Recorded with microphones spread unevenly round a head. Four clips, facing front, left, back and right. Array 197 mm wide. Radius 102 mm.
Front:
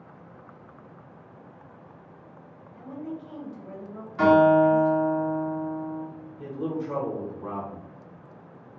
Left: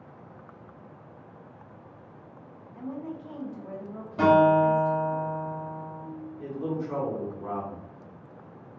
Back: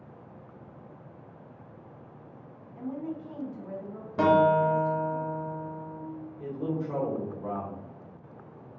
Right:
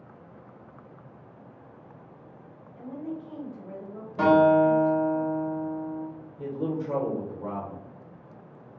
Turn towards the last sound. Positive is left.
turn(degrees=-75)